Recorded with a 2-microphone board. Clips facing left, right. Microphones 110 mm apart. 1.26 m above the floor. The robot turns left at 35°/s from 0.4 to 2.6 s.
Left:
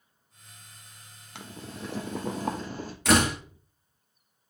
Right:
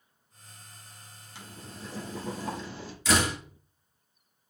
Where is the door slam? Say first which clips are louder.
Left 4 dB; 65° left (ahead or behind), 1.5 m.